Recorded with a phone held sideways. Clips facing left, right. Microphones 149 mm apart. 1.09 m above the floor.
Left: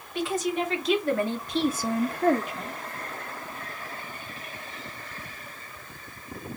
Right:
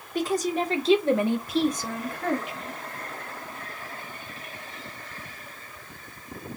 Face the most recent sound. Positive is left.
turn(degrees=50)  # may be behind; listen again after turning